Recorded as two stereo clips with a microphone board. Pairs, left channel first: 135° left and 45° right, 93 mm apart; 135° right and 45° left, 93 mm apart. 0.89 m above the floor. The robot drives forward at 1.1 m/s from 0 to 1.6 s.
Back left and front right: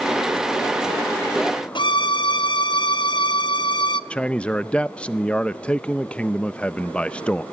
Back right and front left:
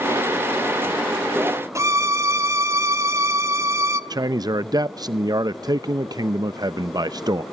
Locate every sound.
1.8 s a violin: 100° left, 0.9 m
4.1 s a man speaking: 60° left, 0.6 m